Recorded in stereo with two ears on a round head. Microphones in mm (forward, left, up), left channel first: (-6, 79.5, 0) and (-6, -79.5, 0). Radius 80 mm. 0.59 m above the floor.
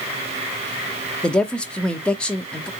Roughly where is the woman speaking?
Centre.